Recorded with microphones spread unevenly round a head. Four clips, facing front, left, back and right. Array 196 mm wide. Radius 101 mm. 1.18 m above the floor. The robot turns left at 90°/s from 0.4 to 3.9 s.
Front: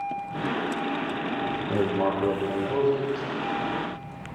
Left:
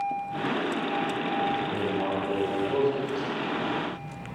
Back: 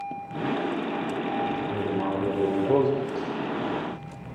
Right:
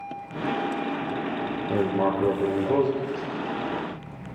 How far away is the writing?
About 6.5 m.